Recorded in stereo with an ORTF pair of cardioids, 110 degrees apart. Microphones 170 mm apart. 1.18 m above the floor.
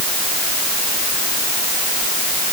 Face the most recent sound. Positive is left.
No sound to turn to.